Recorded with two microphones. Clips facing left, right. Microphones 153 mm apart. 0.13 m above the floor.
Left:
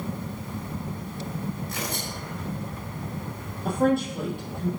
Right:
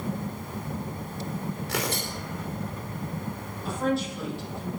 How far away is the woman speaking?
About 5.5 m.